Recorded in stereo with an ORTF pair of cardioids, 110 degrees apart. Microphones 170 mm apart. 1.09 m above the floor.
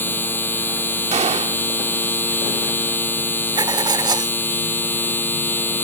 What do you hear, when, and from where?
0.0 s a machine running: 10° left
1.1 s a gunshot: 40° right
3.5 s writing: 25° right